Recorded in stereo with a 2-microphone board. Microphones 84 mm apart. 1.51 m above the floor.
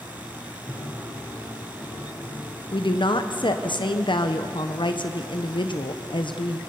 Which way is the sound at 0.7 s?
15° left (ahead or behind).